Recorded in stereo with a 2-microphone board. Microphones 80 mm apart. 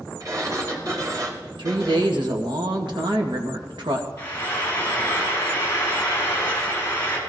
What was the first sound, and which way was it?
A sliding door, 45° right (ahead or behind).